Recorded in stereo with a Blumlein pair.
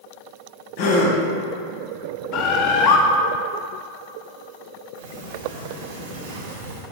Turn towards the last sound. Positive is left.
turn(degrees=-60)